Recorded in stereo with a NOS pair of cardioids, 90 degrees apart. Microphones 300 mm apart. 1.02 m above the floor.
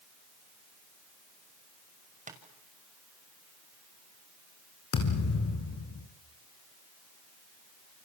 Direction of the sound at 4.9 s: 55° left.